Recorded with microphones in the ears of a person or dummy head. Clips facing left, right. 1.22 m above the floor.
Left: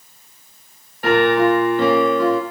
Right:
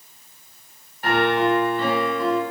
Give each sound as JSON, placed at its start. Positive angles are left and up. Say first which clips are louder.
{"t": 1.0, "sound": "a piano", "louder": "left 5 dB", "side_deg": 50, "distance_m": 0.9}